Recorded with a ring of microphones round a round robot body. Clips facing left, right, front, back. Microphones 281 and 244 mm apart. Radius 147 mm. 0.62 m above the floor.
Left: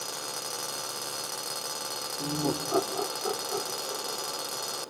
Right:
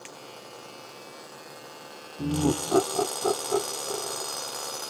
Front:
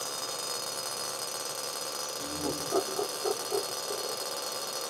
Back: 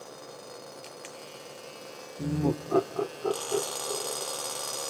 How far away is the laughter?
About 1.3 m.